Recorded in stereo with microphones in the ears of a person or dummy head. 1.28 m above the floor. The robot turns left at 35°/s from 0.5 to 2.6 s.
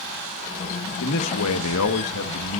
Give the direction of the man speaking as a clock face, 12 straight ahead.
8 o'clock.